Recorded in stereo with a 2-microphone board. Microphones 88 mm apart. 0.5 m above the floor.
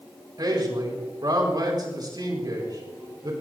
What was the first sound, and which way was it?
A man speaking, 50° right (ahead or behind).